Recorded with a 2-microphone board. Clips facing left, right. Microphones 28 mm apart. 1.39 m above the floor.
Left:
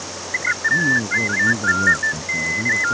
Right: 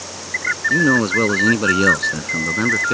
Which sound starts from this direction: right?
A man speaking, at 0.7 s.